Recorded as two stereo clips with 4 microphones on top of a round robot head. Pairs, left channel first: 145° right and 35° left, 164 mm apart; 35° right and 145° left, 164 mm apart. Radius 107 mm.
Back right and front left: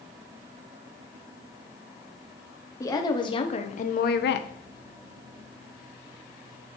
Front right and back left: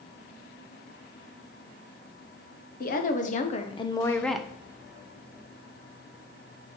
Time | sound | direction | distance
2.8 | a woman speaking | 75° right | 1.2 m